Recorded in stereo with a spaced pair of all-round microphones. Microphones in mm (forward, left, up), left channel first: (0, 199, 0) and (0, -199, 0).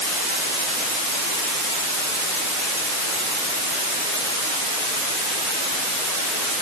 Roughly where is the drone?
I don't hear a drone.